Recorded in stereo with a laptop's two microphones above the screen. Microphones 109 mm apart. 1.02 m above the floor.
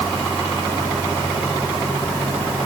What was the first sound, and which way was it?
Only background noise.